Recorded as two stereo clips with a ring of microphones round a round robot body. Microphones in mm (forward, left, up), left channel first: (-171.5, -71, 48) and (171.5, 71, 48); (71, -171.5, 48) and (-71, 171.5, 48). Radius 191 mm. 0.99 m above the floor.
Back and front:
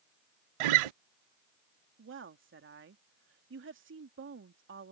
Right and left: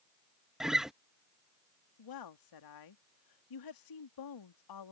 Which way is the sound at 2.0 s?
35° right.